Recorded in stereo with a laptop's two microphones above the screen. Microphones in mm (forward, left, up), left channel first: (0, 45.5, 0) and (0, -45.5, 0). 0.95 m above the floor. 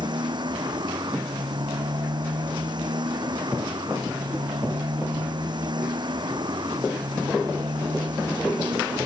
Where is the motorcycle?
55° right (ahead or behind).